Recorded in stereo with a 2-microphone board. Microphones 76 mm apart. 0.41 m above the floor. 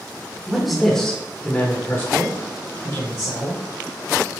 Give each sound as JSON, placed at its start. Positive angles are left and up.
{"t": 0.5, "sound": "a man speaking", "side_deg": -5, "distance_m": 1.1}